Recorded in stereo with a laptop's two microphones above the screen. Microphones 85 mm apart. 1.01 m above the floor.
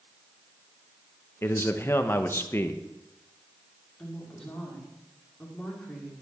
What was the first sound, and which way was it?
A man speaking, 30° left (ahead or behind).